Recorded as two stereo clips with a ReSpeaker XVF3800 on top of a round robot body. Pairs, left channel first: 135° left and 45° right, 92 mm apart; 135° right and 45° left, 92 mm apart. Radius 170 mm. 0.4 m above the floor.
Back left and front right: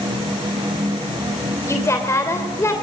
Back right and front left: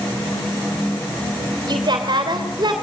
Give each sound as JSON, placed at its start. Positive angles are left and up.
{"t": 1.7, "sound": "a woman speaking", "azimuth_deg": 80, "distance_m": 3.0}